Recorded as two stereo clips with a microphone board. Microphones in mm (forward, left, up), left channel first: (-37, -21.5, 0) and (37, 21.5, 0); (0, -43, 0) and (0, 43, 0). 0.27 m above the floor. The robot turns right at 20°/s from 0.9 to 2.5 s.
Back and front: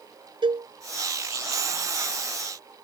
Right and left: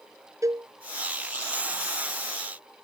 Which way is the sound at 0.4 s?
40° left.